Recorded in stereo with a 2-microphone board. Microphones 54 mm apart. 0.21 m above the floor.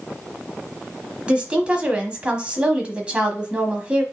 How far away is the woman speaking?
About 1.1 m.